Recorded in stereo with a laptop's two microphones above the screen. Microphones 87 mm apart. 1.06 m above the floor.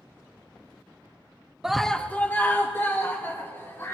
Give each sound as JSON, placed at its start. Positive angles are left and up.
{"t": 1.6, "sound": "a scream", "side_deg": -5, "distance_m": 0.5}